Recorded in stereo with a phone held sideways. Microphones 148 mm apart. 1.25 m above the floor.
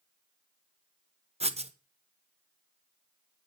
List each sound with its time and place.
1.4 s writing: 45° right (ahead or behind), 0.7 m